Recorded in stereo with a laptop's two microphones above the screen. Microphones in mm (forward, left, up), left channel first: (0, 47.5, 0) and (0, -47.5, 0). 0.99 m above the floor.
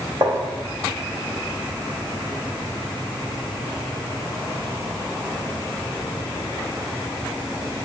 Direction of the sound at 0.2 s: 45° right (ahead or behind).